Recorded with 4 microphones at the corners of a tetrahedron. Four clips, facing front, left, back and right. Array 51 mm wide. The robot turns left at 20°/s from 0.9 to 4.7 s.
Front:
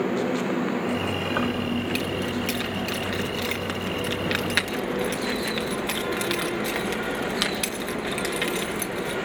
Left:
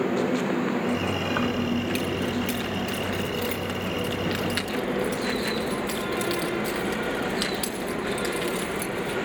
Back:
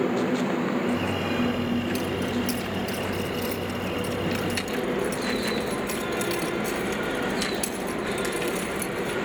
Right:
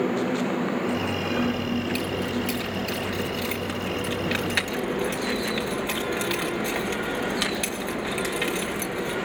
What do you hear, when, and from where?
1.4 s keys jangling: 40° left, 3 m; by 9.2 s 25° right, 3 m